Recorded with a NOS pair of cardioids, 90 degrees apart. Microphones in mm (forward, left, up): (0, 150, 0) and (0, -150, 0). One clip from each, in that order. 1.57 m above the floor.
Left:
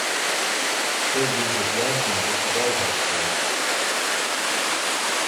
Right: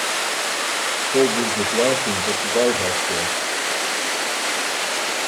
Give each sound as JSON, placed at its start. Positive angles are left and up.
{"t": 1.1, "sound": "a man speaking", "azimuth_deg": -45, "distance_m": 3.0}